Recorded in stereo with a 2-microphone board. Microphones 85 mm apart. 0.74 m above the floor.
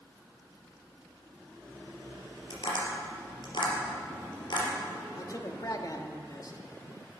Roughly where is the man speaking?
Left.